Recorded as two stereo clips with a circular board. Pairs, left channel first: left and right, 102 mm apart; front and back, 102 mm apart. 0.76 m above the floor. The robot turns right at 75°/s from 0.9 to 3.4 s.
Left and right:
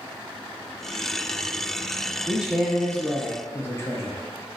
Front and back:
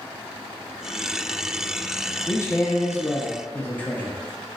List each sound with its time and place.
2.3 s a man speaking: 30° right, 0.7 m; by 4.2 s 60° left, 0.7 m